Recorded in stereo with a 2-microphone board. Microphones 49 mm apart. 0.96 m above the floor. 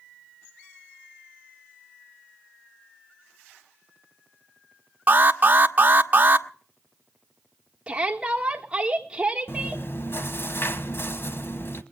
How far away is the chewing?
About 1.2 m.